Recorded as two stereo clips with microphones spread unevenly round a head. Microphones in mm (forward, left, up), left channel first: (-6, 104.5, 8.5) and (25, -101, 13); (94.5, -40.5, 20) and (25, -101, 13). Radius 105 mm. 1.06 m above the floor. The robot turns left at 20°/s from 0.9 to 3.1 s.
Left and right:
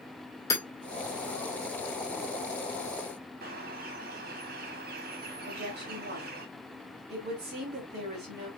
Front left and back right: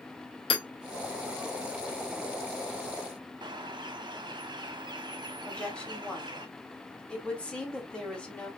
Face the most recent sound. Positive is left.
turn(degrees=-40)